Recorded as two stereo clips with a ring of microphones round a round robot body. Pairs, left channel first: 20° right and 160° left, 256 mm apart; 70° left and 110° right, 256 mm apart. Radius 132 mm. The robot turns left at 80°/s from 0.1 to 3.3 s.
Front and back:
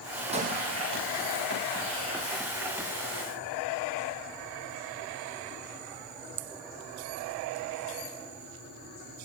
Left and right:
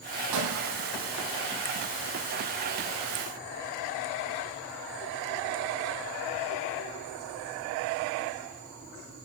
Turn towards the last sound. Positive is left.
turn(degrees=-10)